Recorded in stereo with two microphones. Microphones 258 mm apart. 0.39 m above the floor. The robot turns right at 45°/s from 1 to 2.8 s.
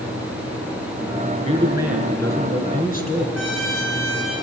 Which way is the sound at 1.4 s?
25° right.